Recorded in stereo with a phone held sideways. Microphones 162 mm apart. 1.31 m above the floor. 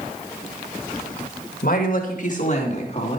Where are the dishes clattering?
I don't hear dishes clattering.